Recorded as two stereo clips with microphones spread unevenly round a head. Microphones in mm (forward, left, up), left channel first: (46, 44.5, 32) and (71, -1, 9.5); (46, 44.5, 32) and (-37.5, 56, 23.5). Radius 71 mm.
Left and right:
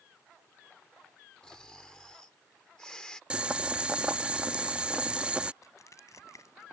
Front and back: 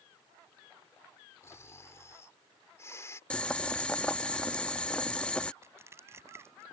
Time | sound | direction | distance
1.4 | snoring | 50° left | ?
3.3 | boiling | 40° left | ?
5.6 | crushing | 115° left | ?